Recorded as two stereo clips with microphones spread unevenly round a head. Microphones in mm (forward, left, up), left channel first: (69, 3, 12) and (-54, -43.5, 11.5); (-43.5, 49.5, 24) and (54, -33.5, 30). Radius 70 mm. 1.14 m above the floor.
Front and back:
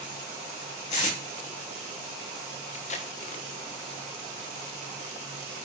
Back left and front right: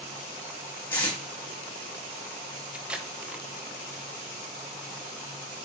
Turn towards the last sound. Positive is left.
turn(degrees=40)